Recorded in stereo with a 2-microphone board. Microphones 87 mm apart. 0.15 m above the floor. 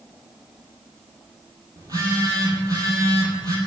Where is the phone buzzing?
45° right (ahead or behind), 1.8 m.